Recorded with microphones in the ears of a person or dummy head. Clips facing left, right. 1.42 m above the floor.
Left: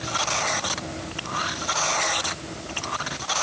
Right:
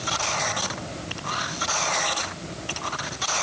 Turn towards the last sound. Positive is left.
No sound to turn to.